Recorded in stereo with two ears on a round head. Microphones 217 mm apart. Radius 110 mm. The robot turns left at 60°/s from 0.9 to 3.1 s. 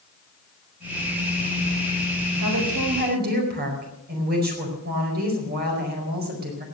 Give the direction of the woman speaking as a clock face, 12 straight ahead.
3 o'clock.